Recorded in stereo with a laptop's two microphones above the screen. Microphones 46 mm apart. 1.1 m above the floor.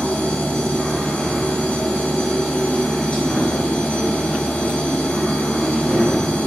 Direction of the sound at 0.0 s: 10° left (ahead or behind).